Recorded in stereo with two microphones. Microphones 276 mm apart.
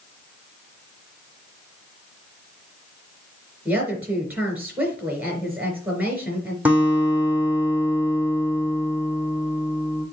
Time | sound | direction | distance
3.6 | a woman speaking | 5° right (ahead or behind) | 3.5 m
6.7 | a guitar | 5° right (ahead or behind) | 2.5 m